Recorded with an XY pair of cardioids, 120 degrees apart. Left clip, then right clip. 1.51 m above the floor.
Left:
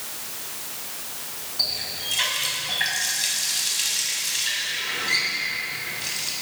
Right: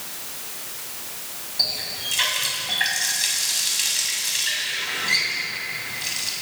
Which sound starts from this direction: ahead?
A running tap, at 1.6 s.